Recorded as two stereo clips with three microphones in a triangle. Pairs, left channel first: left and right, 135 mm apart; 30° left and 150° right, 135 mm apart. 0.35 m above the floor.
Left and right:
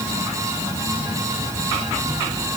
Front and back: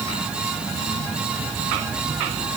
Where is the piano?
No piano in this recording.